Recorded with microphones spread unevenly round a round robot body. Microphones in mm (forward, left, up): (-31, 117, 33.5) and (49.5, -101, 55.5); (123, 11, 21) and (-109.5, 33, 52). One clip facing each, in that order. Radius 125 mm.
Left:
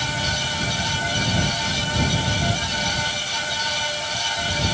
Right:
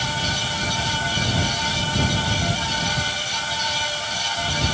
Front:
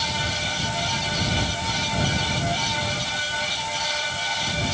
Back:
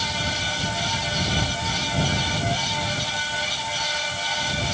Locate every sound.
Only background noise.